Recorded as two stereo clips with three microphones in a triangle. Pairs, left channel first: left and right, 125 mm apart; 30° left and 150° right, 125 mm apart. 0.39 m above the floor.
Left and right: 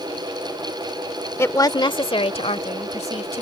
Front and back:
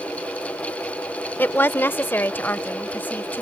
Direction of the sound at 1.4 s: 70° left.